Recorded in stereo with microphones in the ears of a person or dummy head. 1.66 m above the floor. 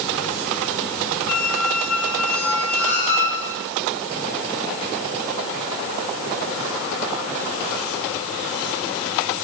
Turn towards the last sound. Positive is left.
turn(degrees=5)  # may be behind; listen again after turning